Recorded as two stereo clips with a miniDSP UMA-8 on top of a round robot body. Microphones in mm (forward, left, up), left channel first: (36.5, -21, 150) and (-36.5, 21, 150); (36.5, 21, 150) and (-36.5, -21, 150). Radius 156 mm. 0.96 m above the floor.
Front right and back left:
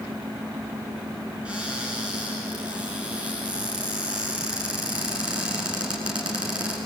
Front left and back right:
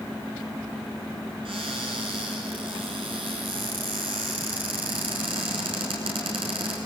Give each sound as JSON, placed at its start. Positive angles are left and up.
{"t": 1.4, "sound": "a cupboard door", "azimuth_deg": -135, "distance_m": 5.5}